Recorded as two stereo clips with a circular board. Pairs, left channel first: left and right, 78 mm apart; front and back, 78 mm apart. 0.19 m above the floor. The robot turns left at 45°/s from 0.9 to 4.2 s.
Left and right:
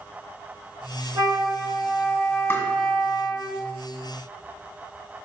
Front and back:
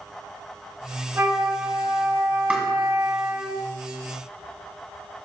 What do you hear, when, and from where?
1.1 s a flute: 120° right, 1.2 m; by 3.5 s 130° left, 1.2 m
2.5 s tapping: 120° left, 1.9 m; by 2.7 s 115° left, 1.9 m